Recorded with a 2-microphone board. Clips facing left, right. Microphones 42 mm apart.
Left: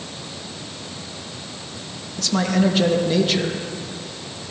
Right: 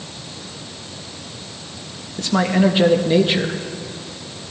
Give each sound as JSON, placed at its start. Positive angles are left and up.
{"t": 2.2, "sound": "a man speaking", "side_deg": -20, "distance_m": 0.9}